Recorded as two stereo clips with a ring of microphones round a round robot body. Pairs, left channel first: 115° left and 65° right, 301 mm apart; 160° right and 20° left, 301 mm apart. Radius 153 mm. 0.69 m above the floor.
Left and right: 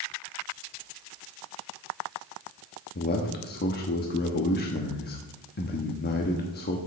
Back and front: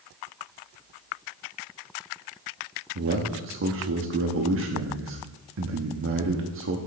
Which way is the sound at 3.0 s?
60° left.